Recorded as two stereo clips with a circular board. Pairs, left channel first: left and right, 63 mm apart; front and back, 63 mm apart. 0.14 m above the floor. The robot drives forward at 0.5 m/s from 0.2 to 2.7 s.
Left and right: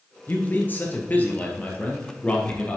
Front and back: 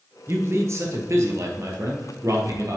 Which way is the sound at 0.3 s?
140° left.